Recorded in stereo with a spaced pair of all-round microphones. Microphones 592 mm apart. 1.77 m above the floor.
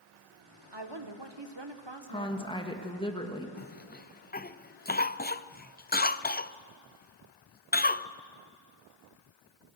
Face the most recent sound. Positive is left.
turn(degrees=15)  # may be behind; listen again after turning